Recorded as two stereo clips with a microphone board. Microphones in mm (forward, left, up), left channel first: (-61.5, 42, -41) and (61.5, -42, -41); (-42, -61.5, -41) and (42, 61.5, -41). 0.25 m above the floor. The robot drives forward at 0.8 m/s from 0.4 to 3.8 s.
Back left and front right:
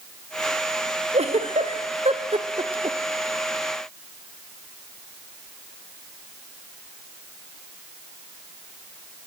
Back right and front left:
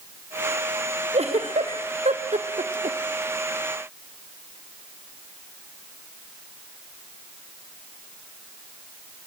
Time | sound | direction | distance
1.1 | a giggle | 10° left | 3 m